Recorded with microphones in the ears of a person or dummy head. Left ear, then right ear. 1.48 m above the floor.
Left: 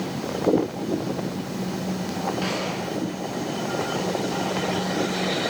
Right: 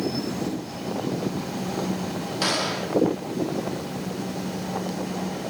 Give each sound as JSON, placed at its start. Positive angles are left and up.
{"t": 2.4, "sound": "a gunshot", "side_deg": -45, "distance_m": 1.6}